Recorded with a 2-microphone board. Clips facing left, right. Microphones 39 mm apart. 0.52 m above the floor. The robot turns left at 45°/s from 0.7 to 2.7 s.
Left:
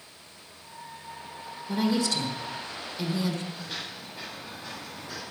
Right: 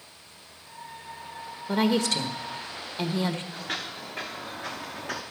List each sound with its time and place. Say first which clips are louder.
1.7 s a woman speaking: right 2 dB; 90° right, 1.4 m; by 3.4 s 135° right, 1.4 m
3.5 s footsteps: right 3 dB; 55° right (ahead or behind), 3.5 m; by 5.2 s 50° right (ahead or behind), 2.5 m